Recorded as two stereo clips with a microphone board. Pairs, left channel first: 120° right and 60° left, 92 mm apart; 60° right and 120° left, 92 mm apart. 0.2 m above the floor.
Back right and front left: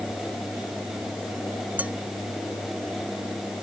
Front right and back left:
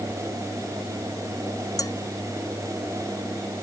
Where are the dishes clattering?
10° right.